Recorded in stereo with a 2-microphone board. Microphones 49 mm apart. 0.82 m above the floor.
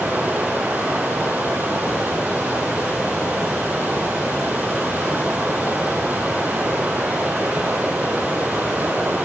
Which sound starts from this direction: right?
Running water, at 0.0 s.